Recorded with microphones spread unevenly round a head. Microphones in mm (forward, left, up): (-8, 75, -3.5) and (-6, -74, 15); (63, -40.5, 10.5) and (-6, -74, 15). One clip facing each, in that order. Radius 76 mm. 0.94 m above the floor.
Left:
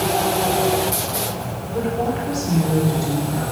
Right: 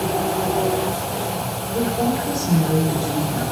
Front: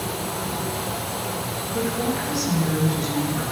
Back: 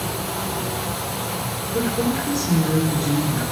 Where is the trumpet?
No trumpet in this recording.